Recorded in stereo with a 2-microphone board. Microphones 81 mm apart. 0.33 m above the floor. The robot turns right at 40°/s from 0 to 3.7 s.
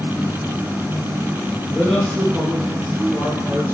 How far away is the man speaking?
About 3.5 m.